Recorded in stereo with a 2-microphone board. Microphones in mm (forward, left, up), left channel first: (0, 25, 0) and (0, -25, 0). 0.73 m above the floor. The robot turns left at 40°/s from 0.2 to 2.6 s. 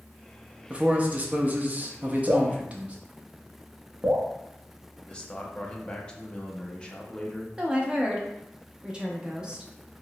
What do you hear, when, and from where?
0.7 s a man speaking: 50° right, 0.6 m; by 3.0 s 125° right, 0.6 m
2.3 s dripping: 40° right (ahead or behind), 0.7 m; by 4.3 s 25° right (ahead or behind), 0.7 m
5.1 s a man speaking: 15° left (ahead or behind), 0.5 m
7.6 s a woman speaking: 20° right (ahead or behind), 0.6 m